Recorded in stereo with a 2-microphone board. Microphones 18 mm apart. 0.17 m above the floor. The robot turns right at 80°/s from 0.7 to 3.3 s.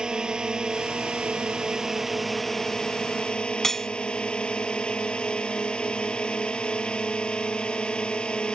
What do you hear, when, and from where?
0.0 s a drone: 130° right; by 8.6 s 75° left
3.6 s cutlery clinking: 25° left (ahead or behind)